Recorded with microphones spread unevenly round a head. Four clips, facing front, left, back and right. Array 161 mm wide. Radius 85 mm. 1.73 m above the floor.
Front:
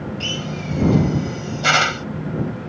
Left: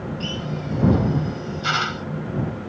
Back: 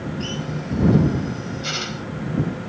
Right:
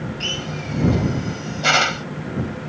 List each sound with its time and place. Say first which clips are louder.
0.2 s a drill: left 1 dB, even; 45° right